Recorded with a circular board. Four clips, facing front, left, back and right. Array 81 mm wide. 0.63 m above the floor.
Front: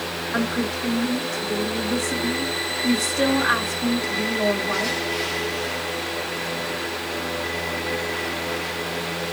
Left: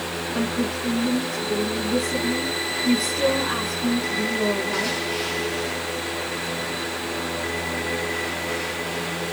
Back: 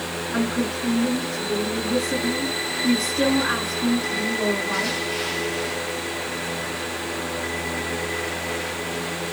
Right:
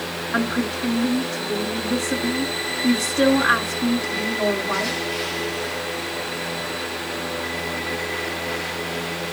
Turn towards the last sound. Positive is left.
turn(degrees=-65)